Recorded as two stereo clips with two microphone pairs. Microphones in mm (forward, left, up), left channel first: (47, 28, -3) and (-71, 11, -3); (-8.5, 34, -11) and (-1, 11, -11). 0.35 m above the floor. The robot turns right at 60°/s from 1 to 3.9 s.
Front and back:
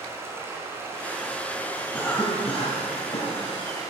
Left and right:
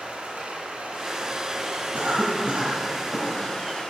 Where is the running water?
105° right, 3 m; by 3.9 s 70° left, 3 m.